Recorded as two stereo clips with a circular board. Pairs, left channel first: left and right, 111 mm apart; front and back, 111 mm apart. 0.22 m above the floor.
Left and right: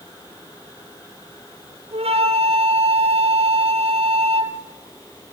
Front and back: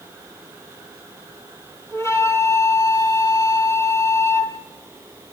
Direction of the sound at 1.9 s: 65° right.